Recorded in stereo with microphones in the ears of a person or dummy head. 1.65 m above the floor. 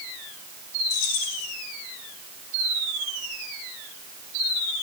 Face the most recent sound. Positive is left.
turn(degrees=55)  # may be behind; listen again after turning